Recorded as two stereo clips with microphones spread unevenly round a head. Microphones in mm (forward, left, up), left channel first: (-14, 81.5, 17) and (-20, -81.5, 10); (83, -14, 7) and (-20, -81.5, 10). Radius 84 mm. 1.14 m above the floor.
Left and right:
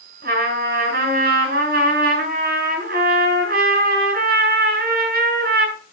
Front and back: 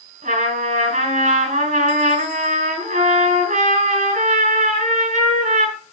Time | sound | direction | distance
0.2 | a trumpet | 125° right | 6.5 m